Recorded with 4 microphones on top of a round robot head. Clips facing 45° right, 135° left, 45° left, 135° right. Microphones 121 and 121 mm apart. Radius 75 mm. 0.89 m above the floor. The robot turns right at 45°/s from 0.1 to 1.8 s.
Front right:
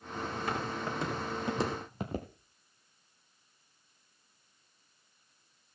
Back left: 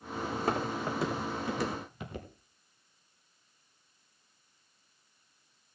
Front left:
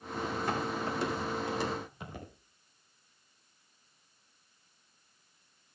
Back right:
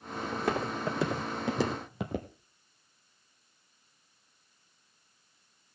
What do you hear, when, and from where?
0.3 s footsteps: 175° right, 4 m; by 2.3 s 100° right, 2.0 m